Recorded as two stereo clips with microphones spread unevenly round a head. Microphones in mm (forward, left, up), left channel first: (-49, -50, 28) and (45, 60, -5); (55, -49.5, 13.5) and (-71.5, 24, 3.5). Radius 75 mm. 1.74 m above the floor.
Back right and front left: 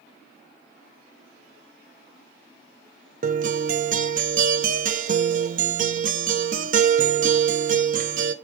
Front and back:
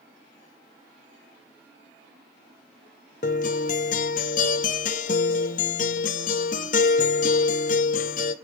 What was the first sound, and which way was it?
A guitar, 10° left.